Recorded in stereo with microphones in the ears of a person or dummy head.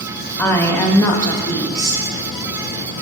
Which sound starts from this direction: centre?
A woman speaking, at 0.4 s.